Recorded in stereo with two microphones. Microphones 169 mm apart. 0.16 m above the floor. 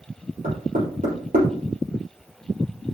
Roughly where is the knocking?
Right.